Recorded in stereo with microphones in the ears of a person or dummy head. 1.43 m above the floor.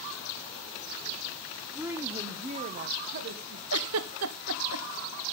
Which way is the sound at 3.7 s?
75° right (ahead or behind).